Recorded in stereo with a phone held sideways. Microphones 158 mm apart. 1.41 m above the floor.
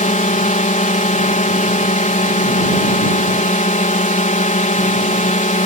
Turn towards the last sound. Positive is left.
turn(degrees=55)  # may be behind; listen again after turning